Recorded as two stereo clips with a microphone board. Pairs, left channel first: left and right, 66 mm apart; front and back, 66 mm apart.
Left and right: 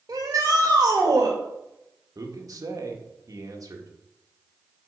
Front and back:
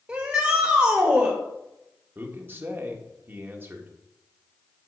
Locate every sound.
0.1 s a shout: 120° right, 2 m
2.1 s a man speaking: 125° right, 1.7 m